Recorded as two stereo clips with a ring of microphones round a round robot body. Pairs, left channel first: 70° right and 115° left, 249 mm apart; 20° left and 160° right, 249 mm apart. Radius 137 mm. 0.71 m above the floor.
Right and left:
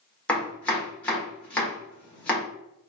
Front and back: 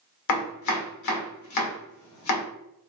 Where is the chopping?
20° left, 1.6 m.